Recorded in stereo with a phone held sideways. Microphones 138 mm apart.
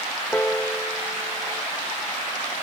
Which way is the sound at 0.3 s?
15° left (ahead or behind).